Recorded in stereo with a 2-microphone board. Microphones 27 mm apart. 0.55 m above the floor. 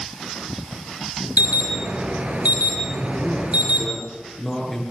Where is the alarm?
60° right (ahead or behind), 5.5 m.